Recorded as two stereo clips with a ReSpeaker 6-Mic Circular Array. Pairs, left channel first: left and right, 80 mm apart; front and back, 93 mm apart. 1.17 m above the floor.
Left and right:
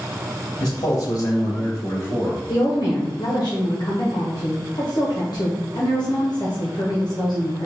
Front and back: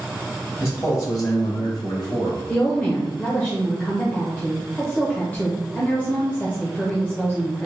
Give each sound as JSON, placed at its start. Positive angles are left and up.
{"t": 0.6, "sound": "a man speaking", "azimuth_deg": 60, "distance_m": 1.5}
{"t": 2.5, "sound": "a woman speaking", "azimuth_deg": 70, "distance_m": 0.9}